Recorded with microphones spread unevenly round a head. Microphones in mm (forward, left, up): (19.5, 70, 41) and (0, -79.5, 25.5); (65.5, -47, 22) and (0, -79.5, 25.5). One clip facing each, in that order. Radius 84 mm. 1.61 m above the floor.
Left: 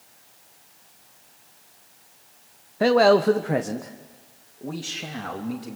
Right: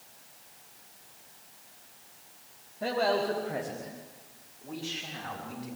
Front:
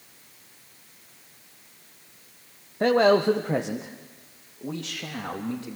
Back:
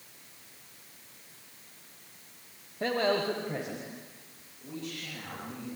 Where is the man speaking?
85° left, 1.0 m; by 5.8 s 55° left, 3.5 m.